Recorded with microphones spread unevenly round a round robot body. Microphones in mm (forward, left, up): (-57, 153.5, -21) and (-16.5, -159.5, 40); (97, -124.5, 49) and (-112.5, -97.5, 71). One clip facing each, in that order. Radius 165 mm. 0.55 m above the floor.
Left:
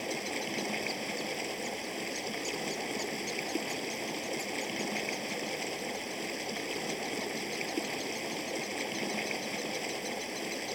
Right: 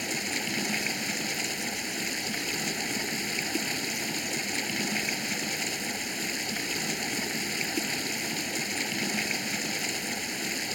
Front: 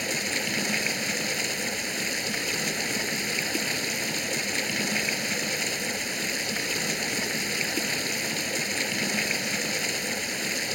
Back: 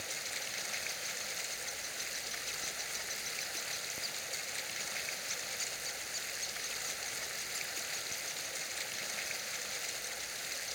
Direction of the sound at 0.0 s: 20° right.